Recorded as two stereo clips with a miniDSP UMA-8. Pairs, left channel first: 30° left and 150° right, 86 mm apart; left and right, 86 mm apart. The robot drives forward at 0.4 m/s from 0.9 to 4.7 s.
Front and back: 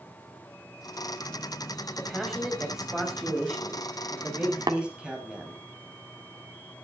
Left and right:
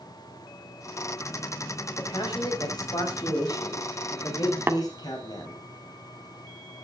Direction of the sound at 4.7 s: 150° right.